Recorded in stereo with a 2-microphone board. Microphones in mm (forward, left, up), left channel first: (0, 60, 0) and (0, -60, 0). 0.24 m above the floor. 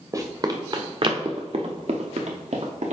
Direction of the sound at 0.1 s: 30° right (ahead or behind).